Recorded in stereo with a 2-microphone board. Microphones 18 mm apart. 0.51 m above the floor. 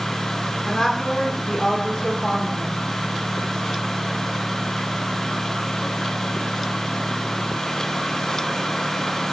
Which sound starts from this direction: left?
A woman speaking, at 0.7 s.